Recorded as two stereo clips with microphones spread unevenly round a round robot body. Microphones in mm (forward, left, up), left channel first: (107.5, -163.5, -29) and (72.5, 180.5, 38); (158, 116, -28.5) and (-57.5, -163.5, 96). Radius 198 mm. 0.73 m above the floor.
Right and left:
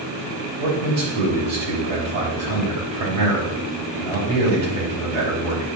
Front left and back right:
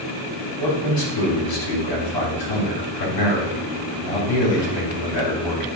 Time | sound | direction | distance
0.6 | a man speaking | 80° left | 3.5 m